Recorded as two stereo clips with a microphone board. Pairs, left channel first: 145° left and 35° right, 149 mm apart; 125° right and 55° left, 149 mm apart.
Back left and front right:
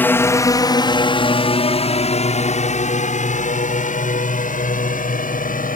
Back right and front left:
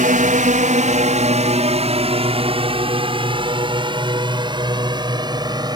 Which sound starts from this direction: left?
A drone, at 0.0 s.